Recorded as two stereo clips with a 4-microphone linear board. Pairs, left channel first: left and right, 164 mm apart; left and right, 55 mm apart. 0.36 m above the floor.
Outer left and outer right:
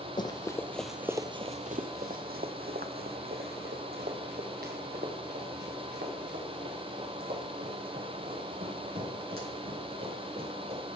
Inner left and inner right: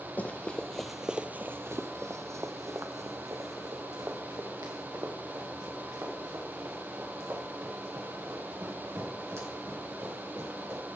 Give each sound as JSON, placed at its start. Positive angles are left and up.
{"t": 0.2, "sound": "running footsteps", "side_deg": 30, "distance_m": 0.8}